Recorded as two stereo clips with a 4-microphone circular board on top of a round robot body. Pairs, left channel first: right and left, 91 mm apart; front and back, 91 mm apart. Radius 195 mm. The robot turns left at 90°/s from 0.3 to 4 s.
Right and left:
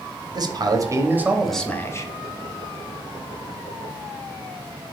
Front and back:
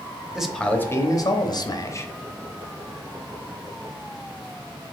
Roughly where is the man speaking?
Left.